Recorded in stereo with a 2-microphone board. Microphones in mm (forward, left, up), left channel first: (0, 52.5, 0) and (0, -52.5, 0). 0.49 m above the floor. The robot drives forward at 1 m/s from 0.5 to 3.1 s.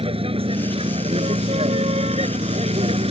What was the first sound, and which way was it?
A vehicle, 65° right (ahead or behind).